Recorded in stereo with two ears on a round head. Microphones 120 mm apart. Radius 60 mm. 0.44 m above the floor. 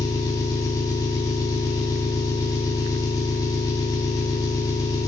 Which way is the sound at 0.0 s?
25° left (ahead or behind).